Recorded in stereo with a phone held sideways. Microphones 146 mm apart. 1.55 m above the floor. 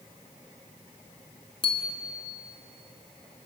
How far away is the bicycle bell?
About 2 m.